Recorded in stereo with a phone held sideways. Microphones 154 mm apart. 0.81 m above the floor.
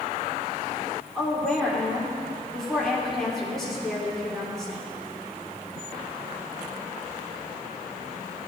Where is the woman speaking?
Centre (ahead or behind), 3 m.